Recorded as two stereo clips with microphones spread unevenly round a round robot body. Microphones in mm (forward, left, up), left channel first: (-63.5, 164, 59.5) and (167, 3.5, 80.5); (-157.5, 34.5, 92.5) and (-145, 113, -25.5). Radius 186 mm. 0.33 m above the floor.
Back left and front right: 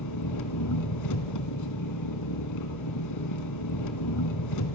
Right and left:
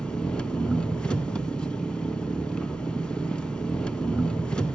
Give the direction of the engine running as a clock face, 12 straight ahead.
6 o'clock.